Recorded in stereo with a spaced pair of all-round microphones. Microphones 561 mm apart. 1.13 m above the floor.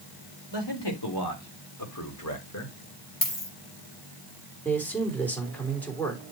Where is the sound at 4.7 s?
5° left (ahead or behind), 3 m.